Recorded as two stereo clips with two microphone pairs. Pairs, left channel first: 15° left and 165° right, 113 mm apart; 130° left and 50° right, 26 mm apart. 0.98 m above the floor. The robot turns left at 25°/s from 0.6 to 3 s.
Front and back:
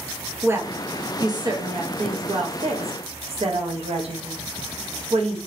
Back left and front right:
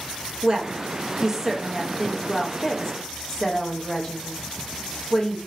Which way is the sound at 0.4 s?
105° right.